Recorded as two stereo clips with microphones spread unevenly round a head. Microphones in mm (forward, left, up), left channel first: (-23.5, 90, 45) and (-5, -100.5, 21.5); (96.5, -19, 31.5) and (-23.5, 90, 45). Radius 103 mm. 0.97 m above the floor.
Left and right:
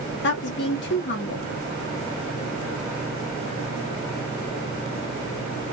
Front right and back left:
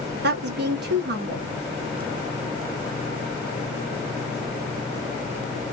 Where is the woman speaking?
125° left, 1.3 m.